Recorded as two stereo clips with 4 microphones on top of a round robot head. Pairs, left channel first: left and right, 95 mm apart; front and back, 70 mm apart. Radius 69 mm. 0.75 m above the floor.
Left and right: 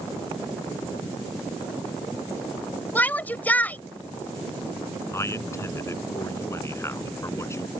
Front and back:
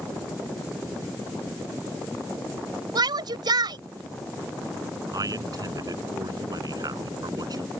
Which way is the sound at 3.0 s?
160° left.